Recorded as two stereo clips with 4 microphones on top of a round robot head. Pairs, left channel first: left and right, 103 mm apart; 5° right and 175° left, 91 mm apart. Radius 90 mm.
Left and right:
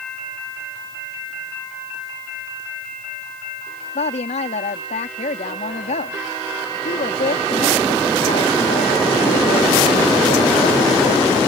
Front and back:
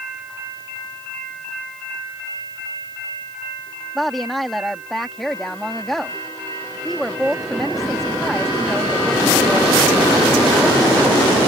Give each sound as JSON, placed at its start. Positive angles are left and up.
{"t": 4.0, "sound": "a woman speaking", "azimuth_deg": 85}